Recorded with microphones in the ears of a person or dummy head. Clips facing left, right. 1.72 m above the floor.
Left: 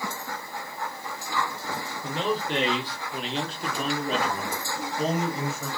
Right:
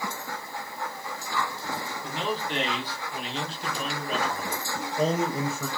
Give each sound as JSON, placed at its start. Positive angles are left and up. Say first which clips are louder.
{"t": 2.0, "sound": "a man speaking", "louder": "left 4 dB", "side_deg": 75, "distance_m": 1.4}
{"t": 4.8, "sound": "a man speaking", "louder": "right 2 dB", "side_deg": -85, "distance_m": 0.7}